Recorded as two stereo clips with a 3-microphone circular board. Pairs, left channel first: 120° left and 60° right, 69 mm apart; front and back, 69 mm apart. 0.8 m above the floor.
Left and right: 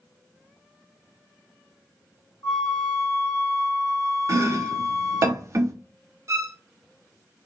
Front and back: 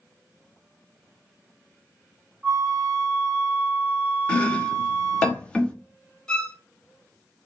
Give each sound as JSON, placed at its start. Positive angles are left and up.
{"t": 2.4, "sound": "a flute", "azimuth_deg": 105, "distance_m": 1.5}
{"t": 4.3, "sound": "chopping", "azimuth_deg": -70, "distance_m": 0.6}
{"t": 6.3, "sound": "a violin", "azimuth_deg": -75, "distance_m": 0.7}